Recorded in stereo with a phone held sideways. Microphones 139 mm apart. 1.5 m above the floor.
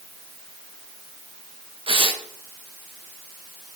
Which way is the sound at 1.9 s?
40° right (ahead or behind).